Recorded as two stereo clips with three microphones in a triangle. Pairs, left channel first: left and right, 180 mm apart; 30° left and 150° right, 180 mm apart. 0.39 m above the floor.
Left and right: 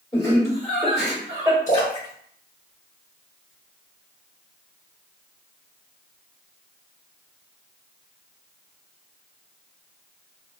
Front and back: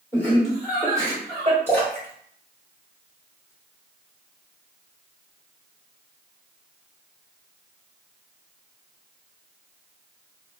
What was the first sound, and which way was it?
Laughter, 80° left.